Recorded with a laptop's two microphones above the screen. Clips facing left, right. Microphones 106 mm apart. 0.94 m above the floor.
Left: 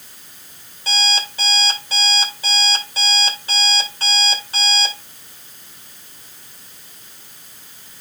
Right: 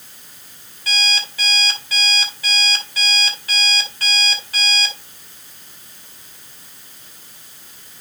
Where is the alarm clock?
30° left (ahead or behind), 2.5 m.